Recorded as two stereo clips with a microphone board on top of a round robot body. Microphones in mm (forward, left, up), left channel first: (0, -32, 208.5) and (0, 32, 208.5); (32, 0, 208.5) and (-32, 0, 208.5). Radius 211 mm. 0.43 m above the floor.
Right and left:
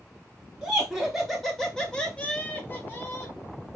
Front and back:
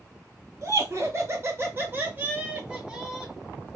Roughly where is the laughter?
Behind.